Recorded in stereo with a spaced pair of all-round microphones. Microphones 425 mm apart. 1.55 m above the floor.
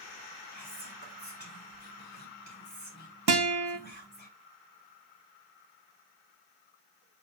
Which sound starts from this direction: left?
Whispering, at 0.5 s.